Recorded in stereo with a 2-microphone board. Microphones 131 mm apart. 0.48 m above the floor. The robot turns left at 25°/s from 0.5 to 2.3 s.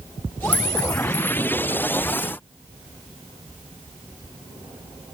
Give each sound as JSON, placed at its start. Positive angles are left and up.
{"t": 0.5, "sound": "a clink", "side_deg": 10, "distance_m": 1.6}